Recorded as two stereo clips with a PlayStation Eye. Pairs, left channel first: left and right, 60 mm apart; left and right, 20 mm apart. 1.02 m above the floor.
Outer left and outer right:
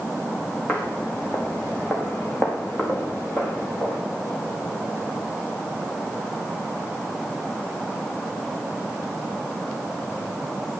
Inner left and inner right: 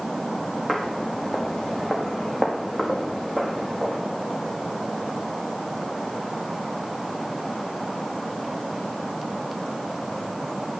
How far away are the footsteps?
About 4 m.